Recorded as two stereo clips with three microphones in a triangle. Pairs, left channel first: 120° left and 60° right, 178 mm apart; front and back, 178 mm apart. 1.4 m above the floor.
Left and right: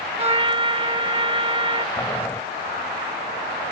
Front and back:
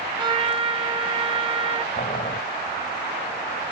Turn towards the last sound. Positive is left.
turn(degrees=45)